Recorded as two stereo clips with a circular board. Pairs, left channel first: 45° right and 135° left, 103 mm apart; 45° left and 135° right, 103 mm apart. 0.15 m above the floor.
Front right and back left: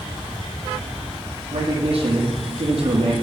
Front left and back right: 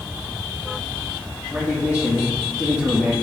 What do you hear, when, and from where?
1.5 s a man speaking: 150° left, 6 m; by 3.1 s 145° left, 4.5 m